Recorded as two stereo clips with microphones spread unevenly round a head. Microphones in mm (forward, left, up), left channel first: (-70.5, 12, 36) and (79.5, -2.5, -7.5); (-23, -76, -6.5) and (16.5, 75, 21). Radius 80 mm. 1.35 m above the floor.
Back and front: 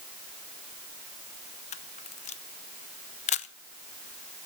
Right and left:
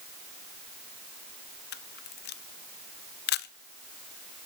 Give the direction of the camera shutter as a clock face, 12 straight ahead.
5 o'clock.